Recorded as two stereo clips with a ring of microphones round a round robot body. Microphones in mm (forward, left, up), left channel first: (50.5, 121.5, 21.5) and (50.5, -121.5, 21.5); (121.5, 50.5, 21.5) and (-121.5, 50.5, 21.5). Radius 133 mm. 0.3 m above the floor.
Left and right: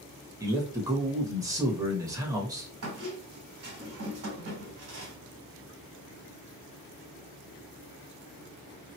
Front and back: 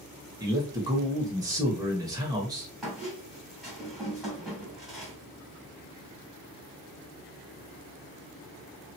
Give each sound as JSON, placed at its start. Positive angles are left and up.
{"t": 0.4, "sound": "a man speaking", "azimuth_deg": -140, "distance_m": 0.9}
{"t": 2.8, "sound": "a squeak", "azimuth_deg": -90, "distance_m": 1.4}